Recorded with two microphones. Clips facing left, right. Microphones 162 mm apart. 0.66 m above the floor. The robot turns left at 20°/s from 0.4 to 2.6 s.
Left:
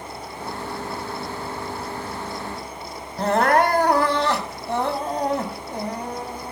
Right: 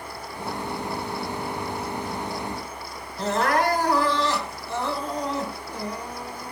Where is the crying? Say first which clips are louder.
Left 5 dB; 55° left (ahead or behind), 2.5 m.